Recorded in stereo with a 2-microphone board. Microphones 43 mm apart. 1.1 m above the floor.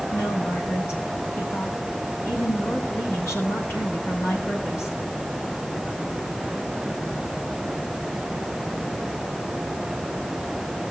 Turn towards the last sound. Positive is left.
turn(degrees=80)